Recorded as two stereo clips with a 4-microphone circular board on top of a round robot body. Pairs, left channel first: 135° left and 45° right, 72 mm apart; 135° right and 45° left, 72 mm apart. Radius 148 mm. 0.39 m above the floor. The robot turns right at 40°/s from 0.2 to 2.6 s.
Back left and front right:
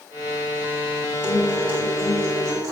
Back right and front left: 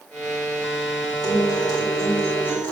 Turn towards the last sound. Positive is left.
turn(degrees=-65)